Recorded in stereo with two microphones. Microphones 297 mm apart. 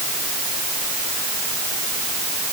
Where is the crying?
No crying in this recording.